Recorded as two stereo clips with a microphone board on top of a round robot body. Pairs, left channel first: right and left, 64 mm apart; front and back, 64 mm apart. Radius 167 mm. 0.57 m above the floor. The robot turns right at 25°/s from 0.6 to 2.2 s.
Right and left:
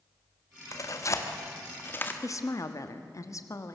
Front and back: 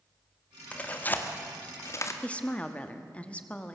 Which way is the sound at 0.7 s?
70° right.